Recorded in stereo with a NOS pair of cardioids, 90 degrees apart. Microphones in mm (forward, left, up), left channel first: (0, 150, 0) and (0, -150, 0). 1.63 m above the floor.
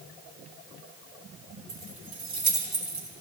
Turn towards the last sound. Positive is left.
turn(degrees=-30)